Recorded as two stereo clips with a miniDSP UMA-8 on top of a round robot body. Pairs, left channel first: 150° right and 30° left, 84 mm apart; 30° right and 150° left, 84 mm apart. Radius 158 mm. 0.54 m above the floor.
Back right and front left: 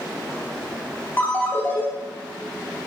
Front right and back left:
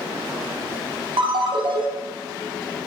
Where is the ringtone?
145° left, 1.0 m.